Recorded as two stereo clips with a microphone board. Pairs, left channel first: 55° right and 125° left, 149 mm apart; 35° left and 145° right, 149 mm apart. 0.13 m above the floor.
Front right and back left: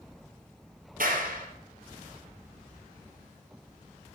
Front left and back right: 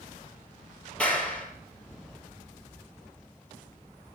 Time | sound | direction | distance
1.0 | a clap | 115° left | 3.5 m